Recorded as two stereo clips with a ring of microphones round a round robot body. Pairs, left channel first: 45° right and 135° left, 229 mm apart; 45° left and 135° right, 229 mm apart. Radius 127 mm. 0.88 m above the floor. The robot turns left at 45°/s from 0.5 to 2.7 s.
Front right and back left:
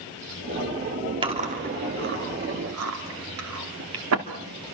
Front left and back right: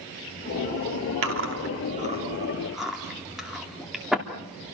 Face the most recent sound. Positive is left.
turn(degrees=135)